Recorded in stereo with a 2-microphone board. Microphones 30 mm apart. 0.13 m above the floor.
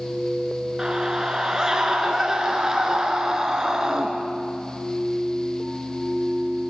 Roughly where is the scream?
Right.